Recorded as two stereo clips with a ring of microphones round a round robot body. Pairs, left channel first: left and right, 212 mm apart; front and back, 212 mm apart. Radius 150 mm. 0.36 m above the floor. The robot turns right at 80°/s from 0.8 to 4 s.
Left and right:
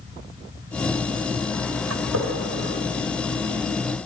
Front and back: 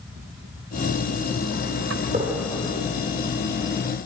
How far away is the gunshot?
About 4 m.